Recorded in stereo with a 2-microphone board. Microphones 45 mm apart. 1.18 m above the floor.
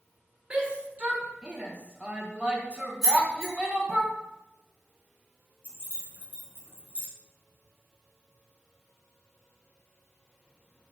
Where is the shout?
20° right (ahead or behind), 1.4 m.